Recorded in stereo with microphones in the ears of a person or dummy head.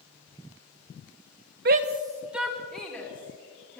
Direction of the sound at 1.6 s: 55° right (ahead or behind).